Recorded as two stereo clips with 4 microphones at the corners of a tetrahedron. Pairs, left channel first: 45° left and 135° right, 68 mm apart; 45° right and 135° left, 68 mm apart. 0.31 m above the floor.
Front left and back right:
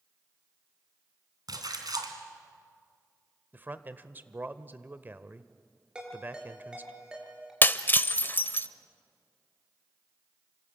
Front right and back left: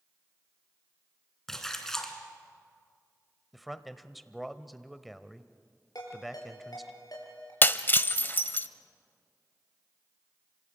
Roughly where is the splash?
Behind right.